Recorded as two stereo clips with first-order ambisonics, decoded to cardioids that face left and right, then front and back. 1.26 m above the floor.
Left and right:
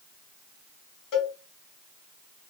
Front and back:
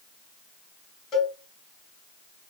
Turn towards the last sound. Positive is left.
turn(degrees=60)